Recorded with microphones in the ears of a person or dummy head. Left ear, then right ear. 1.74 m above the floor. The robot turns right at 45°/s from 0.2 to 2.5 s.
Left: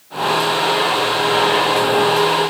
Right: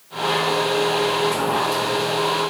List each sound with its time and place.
Only background noise.